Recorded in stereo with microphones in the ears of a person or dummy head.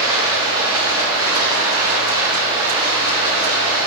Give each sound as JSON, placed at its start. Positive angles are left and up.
{"t": 0.0, "sound": "running water", "side_deg": -20, "distance_m": 1.4}